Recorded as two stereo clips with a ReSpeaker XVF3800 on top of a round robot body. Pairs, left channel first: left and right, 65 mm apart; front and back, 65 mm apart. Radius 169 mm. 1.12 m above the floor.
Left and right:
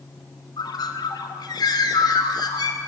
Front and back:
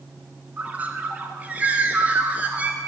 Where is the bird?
110° left, 1.4 m.